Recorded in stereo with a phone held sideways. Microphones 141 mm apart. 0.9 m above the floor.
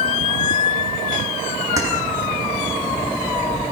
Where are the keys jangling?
20° right (ahead or behind), 7 m.